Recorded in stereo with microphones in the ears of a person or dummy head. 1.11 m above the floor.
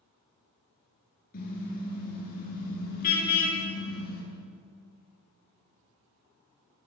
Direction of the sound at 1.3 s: 55° left (ahead or behind).